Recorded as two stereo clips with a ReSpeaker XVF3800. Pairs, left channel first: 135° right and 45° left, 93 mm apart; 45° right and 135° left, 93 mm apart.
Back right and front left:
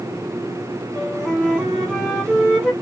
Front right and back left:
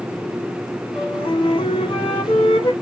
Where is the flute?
50° right, 2 m.